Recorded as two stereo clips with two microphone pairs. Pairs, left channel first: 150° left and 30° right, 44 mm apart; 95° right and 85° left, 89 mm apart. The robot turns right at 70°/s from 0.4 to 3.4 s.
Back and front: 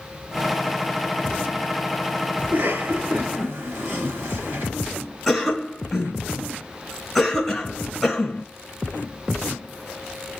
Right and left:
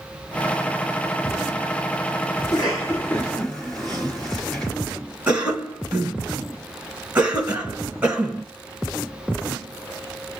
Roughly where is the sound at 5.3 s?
Ahead left.